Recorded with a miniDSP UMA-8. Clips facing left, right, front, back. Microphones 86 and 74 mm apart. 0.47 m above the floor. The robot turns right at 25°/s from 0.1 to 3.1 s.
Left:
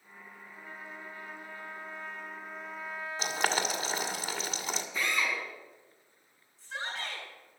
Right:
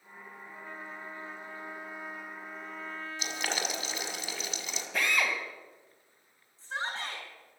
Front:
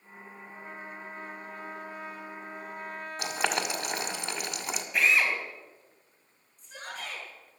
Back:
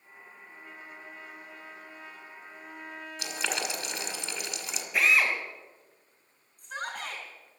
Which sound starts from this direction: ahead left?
Boiling, at 3.2 s.